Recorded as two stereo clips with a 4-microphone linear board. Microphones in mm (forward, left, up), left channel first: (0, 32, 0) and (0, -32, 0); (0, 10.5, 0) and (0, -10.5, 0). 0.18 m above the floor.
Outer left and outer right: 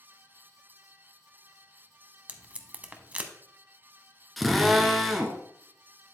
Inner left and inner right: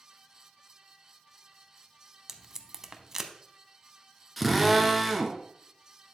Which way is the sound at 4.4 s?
Centre (ahead or behind).